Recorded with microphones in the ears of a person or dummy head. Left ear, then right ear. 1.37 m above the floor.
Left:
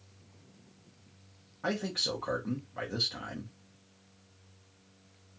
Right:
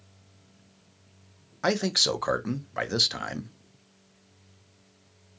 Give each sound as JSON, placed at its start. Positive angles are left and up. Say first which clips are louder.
{"t": 1.6, "sound": "a man speaking", "louder": "right 8 dB", "side_deg": -70, "distance_m": 0.7}